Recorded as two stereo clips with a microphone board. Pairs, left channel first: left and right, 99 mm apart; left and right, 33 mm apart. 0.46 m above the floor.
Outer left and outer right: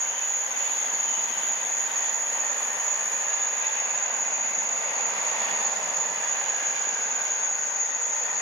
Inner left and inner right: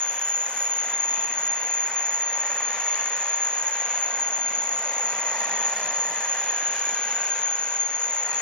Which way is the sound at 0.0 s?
35° left (ahead or behind).